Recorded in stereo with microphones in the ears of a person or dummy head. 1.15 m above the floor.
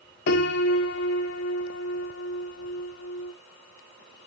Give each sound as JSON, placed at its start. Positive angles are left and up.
{"t": 0.3, "sound": "a piano", "side_deg": 60, "distance_m": 1.3}